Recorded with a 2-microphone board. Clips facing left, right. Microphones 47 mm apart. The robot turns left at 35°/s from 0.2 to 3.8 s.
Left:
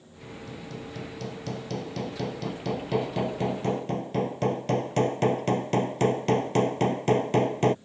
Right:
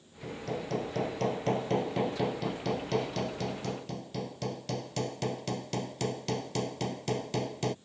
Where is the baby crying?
I don't hear a baby crying.